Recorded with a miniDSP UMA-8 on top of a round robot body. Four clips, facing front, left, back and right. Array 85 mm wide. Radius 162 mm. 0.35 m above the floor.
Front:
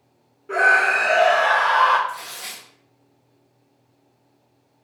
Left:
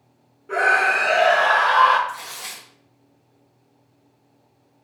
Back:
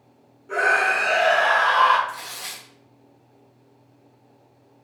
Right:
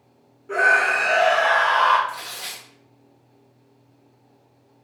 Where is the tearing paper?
95° right, 1.6 m.